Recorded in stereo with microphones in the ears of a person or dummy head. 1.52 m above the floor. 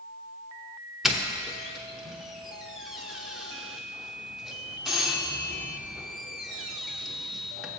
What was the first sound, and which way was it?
A doorbell, 5° right (ahead or behind).